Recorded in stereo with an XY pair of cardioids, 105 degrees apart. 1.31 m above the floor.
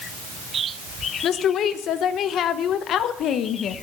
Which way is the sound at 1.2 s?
70° left.